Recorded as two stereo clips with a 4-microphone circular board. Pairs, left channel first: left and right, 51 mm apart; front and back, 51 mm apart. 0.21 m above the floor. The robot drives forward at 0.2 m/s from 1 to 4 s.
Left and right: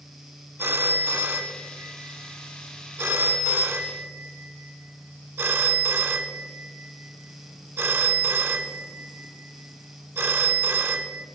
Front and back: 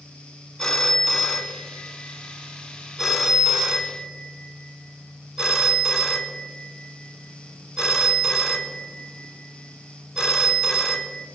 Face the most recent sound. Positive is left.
turn(degrees=-110)